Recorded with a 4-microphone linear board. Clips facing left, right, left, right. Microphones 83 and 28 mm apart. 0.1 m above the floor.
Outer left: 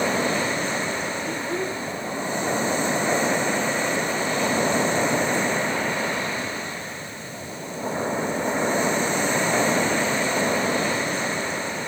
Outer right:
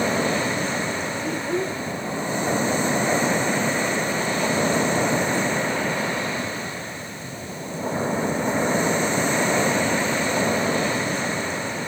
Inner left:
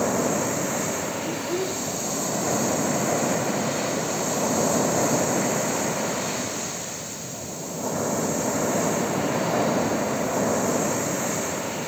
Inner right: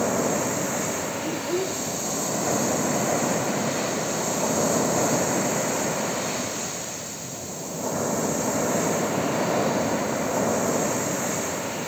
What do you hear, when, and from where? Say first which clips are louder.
1.2 s a child speaking: outer right 2 dB, even; 10° right (ahead or behind), 4 m